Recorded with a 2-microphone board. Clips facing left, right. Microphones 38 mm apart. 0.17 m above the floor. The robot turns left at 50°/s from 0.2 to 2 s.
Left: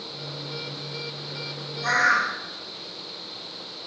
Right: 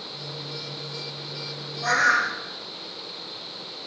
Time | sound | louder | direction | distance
1.8 | a bird | even | 40° right (ahead or behind) | 4.5 m